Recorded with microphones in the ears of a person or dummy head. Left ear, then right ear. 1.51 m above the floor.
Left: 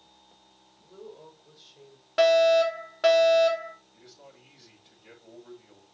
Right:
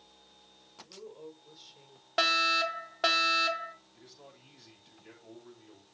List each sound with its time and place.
0.8 s a woman speaking: 10° right (ahead or behind), 6 m
2.2 s a fire alarm: 5° right (ahead or behind), 2.5 m
3.9 s a man speaking: 10° left (ahead or behind), 8 m